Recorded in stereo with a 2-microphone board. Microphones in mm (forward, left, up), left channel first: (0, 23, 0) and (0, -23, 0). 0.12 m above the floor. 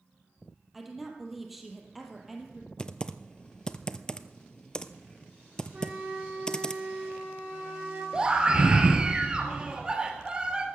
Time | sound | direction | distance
0.7 | a woman speaking | 5° right (ahead or behind) | 3 m
2.8 | typing on a keyboard | 20° left (ahead or behind) | 0.5 m
5.7 | a flute | 25° right (ahead or behind) | 5 m
8.1 | a scream | 20° right (ahead or behind) | 2 m